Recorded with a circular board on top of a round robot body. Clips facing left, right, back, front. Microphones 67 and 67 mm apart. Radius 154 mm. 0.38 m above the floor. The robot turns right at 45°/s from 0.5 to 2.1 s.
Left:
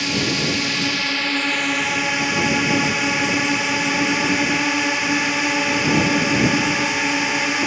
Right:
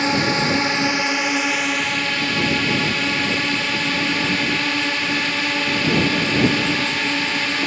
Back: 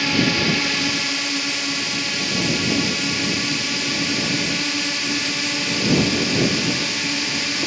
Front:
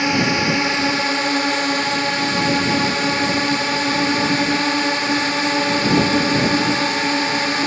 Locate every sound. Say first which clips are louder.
0.0 s a drone: right 3 dB, front 2 dB; 55° right; by 7.7 s 20° left